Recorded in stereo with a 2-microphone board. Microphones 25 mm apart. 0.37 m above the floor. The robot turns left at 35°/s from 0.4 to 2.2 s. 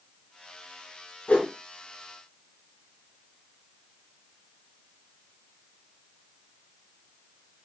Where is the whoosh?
55° left (ahead or behind), 0.8 m; by 1.5 s 65° left (ahead or behind), 0.8 m.